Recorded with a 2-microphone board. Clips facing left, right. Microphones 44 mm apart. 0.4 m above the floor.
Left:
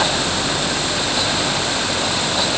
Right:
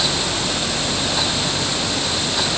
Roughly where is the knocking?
No knocking in this recording.